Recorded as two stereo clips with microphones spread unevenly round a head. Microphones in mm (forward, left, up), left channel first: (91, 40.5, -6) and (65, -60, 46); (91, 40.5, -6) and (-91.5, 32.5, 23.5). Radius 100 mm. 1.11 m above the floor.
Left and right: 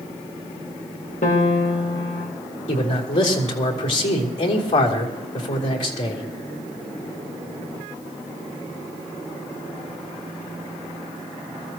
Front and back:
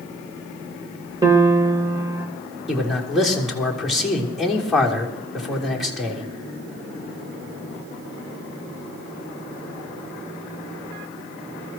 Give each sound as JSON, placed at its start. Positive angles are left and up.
{"t": 1.2, "sound": "a piano", "azimuth_deg": 115, "distance_m": 2.0}
{"t": 2.7, "sound": "a man speaking", "azimuth_deg": 95, "distance_m": 3.5}